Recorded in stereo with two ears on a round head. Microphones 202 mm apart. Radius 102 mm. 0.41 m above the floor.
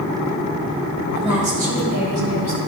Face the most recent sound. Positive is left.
turn(degrees=-55)  # may be behind; listen again after turning